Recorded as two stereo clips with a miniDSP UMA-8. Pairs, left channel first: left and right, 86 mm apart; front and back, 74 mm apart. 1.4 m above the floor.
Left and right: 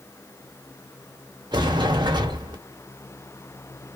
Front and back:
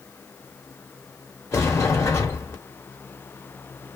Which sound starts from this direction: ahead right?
A sliding door, at 1.5 s.